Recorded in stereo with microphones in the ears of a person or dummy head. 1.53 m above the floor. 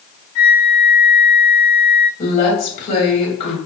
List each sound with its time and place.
0.3 s a flute: 45° left (ahead or behind), 0.6 m
2.2 s a woman speaking: 50° left (ahead or behind), 1.8 m